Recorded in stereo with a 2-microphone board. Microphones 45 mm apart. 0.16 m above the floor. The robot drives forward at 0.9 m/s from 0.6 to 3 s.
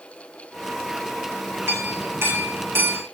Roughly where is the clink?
Right.